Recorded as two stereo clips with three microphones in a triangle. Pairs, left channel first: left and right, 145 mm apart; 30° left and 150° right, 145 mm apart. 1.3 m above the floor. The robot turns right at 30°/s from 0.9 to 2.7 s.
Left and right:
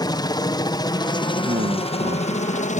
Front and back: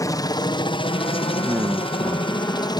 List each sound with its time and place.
0.0 s a helicopter: 65° left; by 2.8 s 85° left
1.4 s a man speaking: 85° right; by 2.8 s 45° right